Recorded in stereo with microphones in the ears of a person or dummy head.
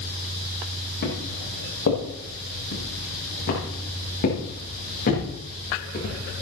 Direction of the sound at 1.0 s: 60° left (ahead or behind).